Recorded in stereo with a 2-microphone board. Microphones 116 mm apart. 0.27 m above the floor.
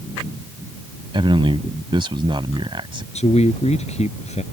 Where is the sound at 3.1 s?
70° left (ahead or behind).